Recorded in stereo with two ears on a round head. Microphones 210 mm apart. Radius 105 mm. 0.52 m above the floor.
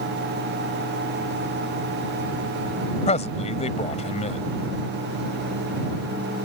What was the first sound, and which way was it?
A man speaking, 30° left (ahead or behind).